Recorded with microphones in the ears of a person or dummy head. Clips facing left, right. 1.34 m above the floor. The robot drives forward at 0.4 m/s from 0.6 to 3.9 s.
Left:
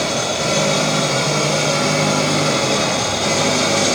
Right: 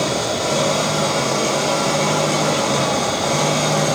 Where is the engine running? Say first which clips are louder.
Even; 25° left (ahead or behind), 5 m; by 4.0 s 30° left (ahead or behind), 4 m.